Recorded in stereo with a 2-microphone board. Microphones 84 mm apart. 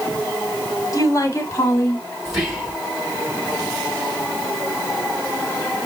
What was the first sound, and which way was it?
A woman speaking, 35° left (ahead or behind).